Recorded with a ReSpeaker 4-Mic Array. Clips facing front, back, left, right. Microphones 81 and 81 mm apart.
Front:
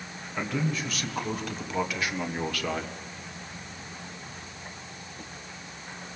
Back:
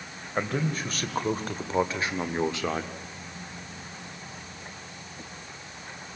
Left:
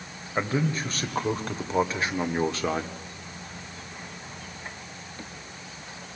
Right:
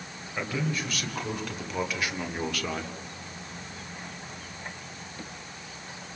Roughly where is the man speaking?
Behind left.